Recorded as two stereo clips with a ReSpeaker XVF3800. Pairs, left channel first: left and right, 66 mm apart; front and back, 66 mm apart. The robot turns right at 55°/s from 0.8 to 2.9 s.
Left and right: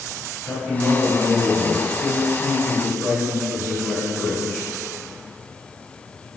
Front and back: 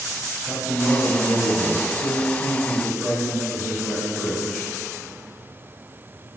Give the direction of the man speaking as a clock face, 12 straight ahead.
11 o'clock.